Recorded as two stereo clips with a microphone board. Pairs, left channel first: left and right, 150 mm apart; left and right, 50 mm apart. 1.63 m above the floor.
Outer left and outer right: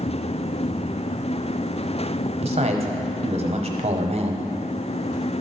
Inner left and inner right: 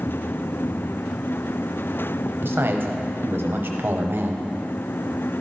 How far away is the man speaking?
About 0.9 m.